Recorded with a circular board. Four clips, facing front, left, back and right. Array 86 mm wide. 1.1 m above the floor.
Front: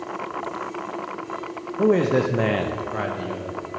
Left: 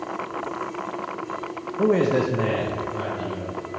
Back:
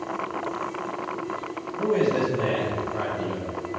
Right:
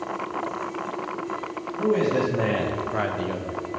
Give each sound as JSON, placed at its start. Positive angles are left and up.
{"t": 1.8, "sound": "a man speaking", "azimuth_deg": 40, "distance_m": 0.8}